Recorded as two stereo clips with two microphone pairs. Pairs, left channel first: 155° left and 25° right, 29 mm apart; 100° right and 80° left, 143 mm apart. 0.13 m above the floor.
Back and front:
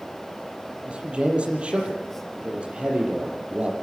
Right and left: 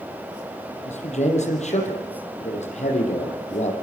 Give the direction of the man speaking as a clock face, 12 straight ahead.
2 o'clock.